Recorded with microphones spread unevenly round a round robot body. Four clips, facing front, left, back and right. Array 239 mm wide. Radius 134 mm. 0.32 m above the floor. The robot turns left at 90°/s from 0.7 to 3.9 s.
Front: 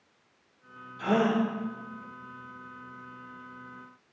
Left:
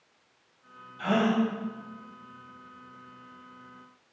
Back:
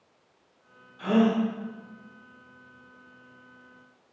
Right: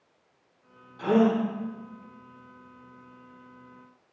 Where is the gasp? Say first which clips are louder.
Right 3 dB, back 2 dB; 95° right, 4 m; by 1.4 s 130° right, 4 m.